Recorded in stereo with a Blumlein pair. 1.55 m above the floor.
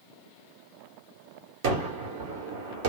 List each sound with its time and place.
1.6 s a gunshot: 50° right, 1.1 m